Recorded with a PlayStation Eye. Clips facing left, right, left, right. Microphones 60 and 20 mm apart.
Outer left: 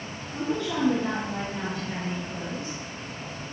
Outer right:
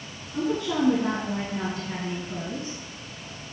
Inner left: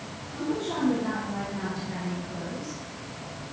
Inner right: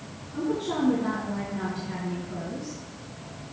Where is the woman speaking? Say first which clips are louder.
Outer right 2 dB, inner right 2 dB; 15° right (ahead or behind), 4 m.